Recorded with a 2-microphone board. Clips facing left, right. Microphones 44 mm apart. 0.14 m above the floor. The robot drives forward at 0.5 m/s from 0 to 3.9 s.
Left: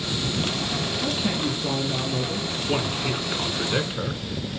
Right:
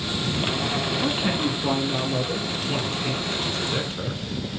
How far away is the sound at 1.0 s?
About 1.3 m.